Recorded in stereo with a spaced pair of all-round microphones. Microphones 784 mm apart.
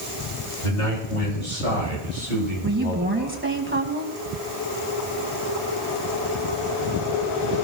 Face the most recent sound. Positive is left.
turn(degrees=-15)  # may be behind; listen again after turning